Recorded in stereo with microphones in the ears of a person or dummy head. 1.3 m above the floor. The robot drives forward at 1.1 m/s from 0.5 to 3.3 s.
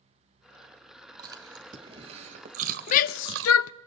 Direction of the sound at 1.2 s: 25° right (ahead or behind).